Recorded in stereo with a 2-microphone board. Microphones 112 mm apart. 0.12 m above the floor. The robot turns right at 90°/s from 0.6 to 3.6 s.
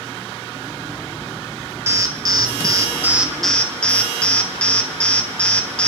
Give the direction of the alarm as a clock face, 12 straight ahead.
5 o'clock.